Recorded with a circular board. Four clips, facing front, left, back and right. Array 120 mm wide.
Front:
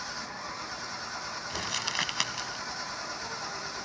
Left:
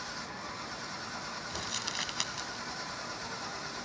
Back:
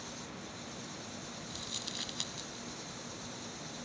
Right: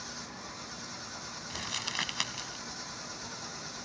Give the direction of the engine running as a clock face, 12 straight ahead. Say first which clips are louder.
Left 3 dB, front 7 dB; 11 o'clock.